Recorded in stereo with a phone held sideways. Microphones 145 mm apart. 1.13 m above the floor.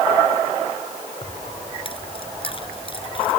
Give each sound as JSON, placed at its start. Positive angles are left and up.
{"t": 1.2, "sound": "keys jangling", "side_deg": 40}